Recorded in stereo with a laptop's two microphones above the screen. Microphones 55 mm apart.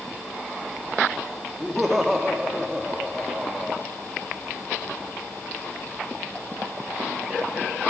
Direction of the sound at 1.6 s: Centre (ahead or behind).